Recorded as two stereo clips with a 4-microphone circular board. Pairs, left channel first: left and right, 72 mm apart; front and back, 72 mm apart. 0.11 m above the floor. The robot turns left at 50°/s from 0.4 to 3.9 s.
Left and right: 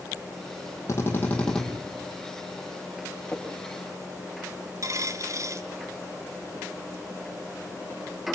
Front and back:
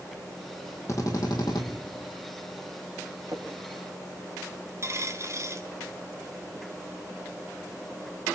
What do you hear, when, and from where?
0.9 s a drill: 45° left, 4.5 m; by 1.6 s 5° left, 4.5 m
3.3 s a splash: 165° left, 6 m; by 3.9 s 135° left, 6 m
4.8 s a dropped coin: 130° right, 1.7 m